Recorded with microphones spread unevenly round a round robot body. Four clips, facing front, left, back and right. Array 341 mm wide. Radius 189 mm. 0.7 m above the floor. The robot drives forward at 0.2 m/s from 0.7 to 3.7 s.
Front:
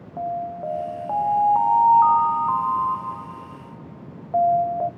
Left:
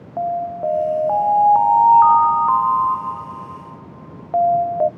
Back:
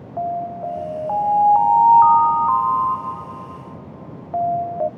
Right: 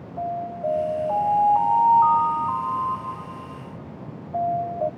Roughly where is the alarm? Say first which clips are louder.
Left 6 dB, back 3 dB; ahead left.